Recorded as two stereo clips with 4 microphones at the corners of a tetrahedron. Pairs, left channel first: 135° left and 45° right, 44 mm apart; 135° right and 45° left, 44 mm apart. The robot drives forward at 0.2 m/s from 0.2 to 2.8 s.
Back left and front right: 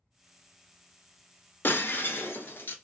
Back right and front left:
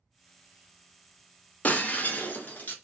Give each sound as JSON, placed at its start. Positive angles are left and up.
{"t": 1.6, "sound": "breaking glass", "azimuth_deg": 170, "distance_m": 0.5}